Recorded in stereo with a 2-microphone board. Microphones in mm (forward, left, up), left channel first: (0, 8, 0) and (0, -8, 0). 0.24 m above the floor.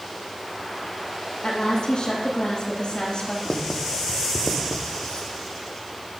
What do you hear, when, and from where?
1.4 s a woman speaking: 60° left (ahead or behind), 9.5 m
3.5 s writing: 60° left (ahead or behind), 3 m